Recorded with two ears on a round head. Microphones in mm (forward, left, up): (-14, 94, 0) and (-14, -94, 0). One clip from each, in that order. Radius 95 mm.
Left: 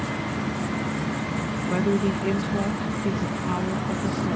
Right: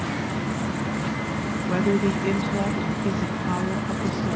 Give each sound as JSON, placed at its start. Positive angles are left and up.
{"t": 1.7, "sound": "a woman speaking", "side_deg": -5}